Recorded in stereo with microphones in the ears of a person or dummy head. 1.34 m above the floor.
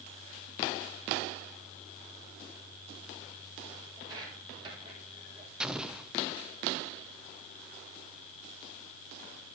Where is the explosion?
5° right (ahead or behind), 0.5 m.